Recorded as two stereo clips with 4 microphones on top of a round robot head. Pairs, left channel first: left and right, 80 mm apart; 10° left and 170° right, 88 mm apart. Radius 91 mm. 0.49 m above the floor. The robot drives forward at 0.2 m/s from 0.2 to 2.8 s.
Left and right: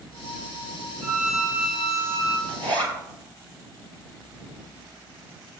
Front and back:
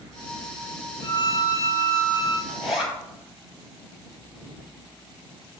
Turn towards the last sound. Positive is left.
turn(degrees=-85)